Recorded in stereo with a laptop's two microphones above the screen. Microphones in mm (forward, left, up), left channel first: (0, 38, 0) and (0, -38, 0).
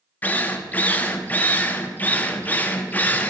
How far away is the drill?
About 1.1 m.